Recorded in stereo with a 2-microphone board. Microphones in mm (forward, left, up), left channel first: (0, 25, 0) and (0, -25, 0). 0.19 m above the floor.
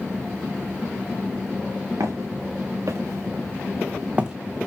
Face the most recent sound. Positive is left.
turn(degrees=-10)  # may be behind; listen again after turning